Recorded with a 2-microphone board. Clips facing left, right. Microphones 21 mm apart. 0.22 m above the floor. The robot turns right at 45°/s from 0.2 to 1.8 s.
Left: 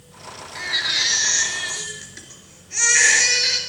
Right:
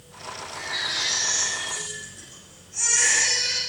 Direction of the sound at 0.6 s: 25° left.